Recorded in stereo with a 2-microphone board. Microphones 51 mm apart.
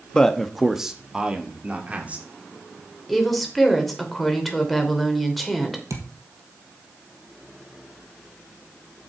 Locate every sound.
0.1 s a man speaking: 15° left (ahead or behind), 1.1 m; by 2.3 s 30° right (ahead or behind), 2.5 m
3.1 s a woman speaking: centre (ahead or behind), 3 m
5.9 s a thud: 80° right, 3 m